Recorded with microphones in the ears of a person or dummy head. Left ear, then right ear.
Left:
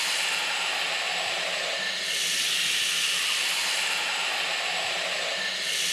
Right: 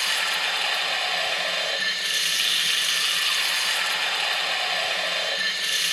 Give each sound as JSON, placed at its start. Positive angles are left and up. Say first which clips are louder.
{"t": 0.0, "sound": "running water", "louder": "right 3 dB", "side_deg": -20, "distance_m": 1.0}